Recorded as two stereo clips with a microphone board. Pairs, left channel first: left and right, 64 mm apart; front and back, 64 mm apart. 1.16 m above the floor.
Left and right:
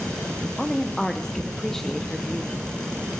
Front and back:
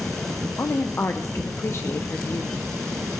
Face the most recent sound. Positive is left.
turn(degrees=10)